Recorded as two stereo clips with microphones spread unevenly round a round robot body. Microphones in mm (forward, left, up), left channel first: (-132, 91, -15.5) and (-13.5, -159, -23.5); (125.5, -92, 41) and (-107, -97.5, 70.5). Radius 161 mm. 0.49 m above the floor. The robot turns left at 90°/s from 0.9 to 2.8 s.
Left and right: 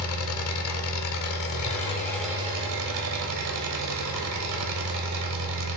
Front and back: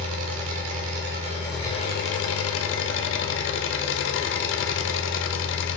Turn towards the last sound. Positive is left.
turn(degrees=-25)